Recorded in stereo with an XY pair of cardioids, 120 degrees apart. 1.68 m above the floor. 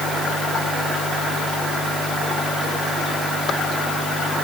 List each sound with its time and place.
Only background noise.